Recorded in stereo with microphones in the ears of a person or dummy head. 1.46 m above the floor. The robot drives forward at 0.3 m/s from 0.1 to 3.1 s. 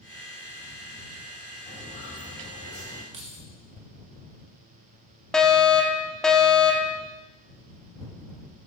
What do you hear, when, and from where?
1.7 s footsteps: 25° left (ahead or behind), 5 m; by 3.0 s 30° left (ahead or behind), 6.5 m
3.1 s keys jangling: 30° right (ahead or behind), 1.0 m
5.3 s a fire alarm: centre (ahead or behind), 0.9 m